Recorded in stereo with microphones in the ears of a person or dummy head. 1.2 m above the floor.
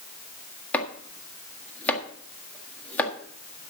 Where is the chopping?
10° left (ahead or behind), 1.6 m.